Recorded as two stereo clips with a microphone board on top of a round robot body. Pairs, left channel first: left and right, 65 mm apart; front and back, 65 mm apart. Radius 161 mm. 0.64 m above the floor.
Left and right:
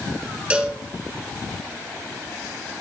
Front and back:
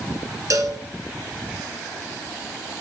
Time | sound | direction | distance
0.5 | a cowbell | 165° right | 1.5 m